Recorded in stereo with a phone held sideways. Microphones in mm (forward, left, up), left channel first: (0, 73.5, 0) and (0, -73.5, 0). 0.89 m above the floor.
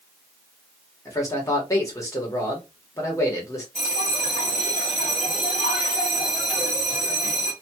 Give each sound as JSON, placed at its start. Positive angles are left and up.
{"t": 1.1, "sound": "a man speaking", "side_deg": 20, "distance_m": 1.5}
{"t": 3.8, "sound": "a bell", "side_deg": 60, "distance_m": 2.0}